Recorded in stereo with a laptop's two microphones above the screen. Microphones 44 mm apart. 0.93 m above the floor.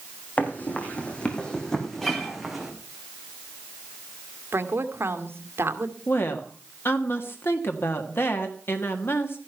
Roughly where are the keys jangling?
I don't hear keys jangling.